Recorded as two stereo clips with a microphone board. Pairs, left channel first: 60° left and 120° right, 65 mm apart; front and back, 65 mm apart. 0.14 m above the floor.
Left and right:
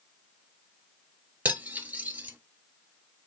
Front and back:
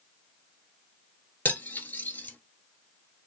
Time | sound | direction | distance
1.4 | cutlery clinking | 60° right | 1.3 m